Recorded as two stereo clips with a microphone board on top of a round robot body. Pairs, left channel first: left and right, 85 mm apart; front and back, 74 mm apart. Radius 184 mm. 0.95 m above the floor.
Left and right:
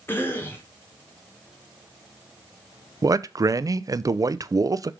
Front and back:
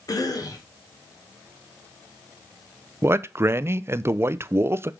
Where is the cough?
30° left, 1.6 m.